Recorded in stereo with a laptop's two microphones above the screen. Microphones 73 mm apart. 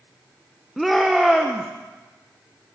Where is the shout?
Centre (ahead or behind), 0.5 m.